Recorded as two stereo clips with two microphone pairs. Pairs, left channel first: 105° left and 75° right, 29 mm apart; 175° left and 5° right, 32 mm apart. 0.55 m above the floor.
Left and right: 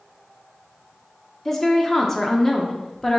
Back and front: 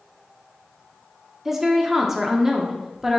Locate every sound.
1.4 s a woman speaking: 60° left, 0.6 m